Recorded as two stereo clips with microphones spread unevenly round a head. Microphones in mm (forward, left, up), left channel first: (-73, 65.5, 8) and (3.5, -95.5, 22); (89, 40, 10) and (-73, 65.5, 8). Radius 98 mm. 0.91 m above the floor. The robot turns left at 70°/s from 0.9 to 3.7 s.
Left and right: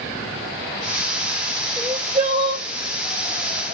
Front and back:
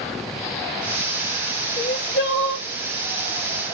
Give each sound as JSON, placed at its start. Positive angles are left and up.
{"t": 1.8, "sound": "crying", "azimuth_deg": 35, "distance_m": 2.5}